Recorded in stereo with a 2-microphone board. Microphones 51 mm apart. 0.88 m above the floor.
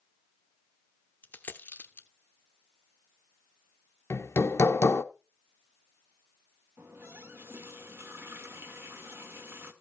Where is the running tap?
50° right (ahead or behind), 1.7 m.